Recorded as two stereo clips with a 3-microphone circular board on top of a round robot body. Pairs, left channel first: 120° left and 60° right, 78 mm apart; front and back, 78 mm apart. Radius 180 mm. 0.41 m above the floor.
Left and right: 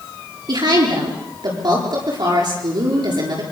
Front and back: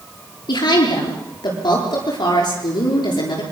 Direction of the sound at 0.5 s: 35° right.